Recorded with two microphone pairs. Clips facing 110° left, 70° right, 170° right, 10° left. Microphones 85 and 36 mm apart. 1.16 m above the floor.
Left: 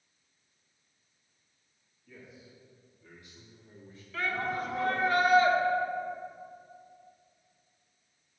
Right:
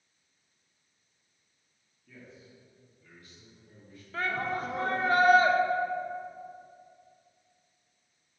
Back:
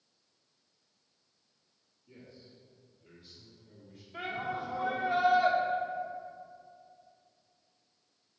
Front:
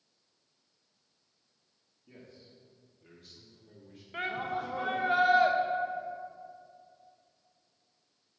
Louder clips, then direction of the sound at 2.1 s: Even, even; 25° left.